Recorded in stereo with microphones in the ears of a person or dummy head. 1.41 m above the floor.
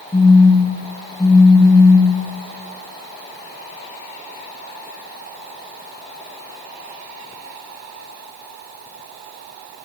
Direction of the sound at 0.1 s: 15° left (ahead or behind).